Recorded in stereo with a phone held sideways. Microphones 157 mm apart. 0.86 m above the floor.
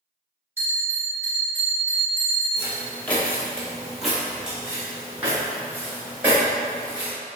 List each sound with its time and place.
0.6 s a bell: 15° right (ahead or behind), 1.2 m
2.6 s footsteps: 15° left (ahead or behind), 0.9 m; by 7.1 s 10° right (ahead or behind), 2.5 m